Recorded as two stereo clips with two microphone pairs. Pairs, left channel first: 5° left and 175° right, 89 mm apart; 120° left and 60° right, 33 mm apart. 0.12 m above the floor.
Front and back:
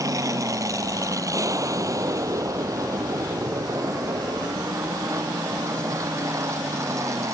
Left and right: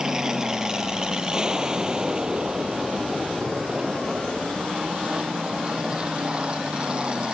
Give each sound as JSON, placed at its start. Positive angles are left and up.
{"t": 0.0, "sound": "an aircraft", "azimuth_deg": -130}